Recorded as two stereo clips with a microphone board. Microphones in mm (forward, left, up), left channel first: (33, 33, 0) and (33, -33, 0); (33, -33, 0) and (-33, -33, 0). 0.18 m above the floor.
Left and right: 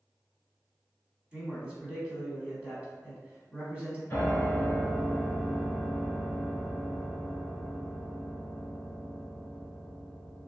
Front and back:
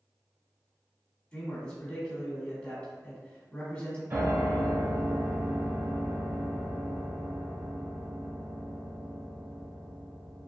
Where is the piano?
145° left, 1.4 m.